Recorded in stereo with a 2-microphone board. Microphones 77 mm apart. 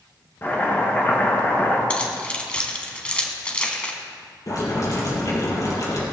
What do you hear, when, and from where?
0.4 s chopping: 30° left (ahead or behind), 4 m
1.9 s keys jangling: 15° left (ahead or behind), 1.9 m
4.5 s boiling: 55° left (ahead or behind), 5.5 m